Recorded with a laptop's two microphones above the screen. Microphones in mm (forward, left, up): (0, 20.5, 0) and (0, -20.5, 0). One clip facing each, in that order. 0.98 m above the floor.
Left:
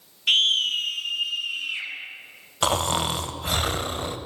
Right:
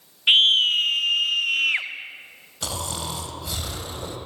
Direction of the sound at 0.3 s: 25° right (ahead or behind).